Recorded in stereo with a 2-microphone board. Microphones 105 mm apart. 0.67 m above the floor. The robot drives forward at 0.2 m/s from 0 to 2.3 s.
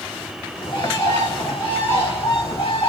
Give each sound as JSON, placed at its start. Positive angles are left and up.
{"t": 0.6, "sound": "a bird", "side_deg": 50, "distance_m": 1.4}